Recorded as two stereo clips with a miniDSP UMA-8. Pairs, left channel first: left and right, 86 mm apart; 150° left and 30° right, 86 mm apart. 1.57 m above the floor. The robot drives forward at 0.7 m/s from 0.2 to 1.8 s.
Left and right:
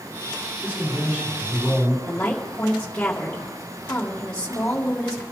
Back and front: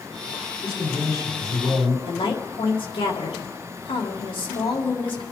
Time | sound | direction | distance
0.6 | a man speaking | 165° right | 6 m
2.1 | a woman speaking | 165° left | 2 m